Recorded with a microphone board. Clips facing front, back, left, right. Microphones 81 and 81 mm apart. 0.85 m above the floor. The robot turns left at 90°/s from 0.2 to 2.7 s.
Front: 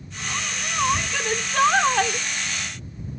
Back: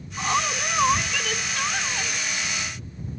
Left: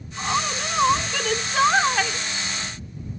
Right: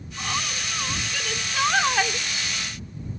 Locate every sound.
0.2 s a woman speaking: 160° left; by 2.3 s 25° right